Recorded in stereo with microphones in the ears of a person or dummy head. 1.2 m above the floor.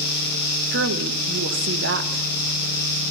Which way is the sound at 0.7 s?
60° right (ahead or behind).